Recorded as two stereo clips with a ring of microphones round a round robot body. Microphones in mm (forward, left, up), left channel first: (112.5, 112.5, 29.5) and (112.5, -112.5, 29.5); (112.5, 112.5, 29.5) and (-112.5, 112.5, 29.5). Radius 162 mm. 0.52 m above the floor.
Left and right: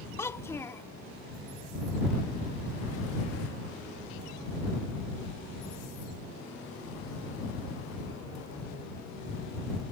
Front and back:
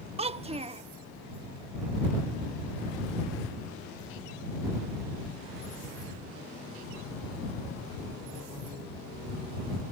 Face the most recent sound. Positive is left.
turn(degrees=155)